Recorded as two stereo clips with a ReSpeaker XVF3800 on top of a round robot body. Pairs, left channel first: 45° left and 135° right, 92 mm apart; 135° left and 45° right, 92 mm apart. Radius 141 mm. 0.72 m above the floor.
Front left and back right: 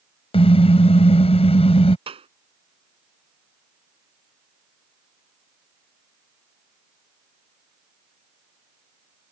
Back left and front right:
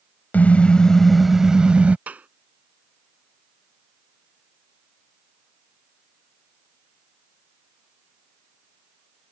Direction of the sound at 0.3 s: 60° left.